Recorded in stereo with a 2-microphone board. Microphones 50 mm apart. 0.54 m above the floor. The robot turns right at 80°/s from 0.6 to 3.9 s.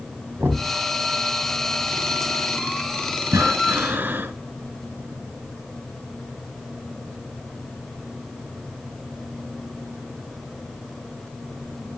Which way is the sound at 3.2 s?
95° right.